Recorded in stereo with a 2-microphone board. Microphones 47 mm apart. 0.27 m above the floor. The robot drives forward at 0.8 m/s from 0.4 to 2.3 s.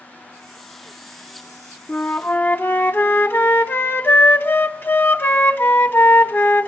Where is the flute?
35° left (ahead or behind), 0.8 m; by 6.7 s 50° left (ahead or behind), 0.6 m.